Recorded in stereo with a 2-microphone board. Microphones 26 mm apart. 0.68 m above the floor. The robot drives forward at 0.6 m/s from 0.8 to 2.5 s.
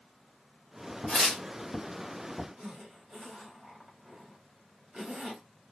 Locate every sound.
1.1 s tearing paper: 35° left (ahead or behind), 1.4 m; by 1.4 s 45° left (ahead or behind), 1.3 m
2.6 s a zipper: 30° right (ahead or behind), 1.4 m